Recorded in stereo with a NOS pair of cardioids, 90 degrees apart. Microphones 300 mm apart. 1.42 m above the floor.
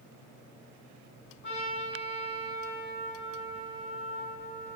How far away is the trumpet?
About 9 m.